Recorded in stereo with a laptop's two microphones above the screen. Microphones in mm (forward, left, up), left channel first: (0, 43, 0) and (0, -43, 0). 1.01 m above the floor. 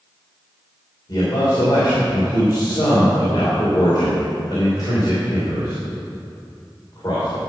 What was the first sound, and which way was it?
A man speaking, 50° left (ahead or behind).